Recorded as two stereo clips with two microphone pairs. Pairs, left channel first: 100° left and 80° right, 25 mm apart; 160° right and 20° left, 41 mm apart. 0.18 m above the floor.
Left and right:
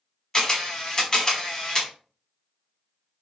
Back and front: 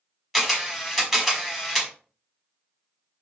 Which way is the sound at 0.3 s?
100° left.